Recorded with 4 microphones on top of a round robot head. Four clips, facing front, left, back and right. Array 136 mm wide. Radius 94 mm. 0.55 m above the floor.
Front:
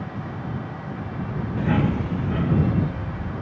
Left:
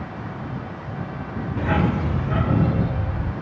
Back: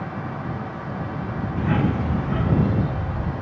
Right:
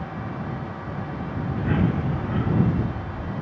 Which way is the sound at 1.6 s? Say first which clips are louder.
Left 2 dB, even; 80° left.